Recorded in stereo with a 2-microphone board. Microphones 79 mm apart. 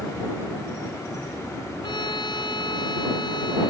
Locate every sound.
1.8 s a violin: 75° left (ahead or behind)